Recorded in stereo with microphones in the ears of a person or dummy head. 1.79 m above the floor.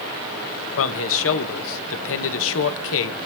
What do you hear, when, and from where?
0.8 s a man speaking: 70° left (ahead or behind), 1.8 m